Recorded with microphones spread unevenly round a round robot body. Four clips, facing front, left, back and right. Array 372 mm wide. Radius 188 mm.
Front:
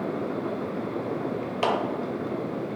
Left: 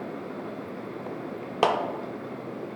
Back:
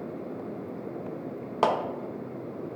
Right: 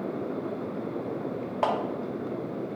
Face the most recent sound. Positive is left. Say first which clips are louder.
# left 3 dB, back 1 dB
turn(degrees=115)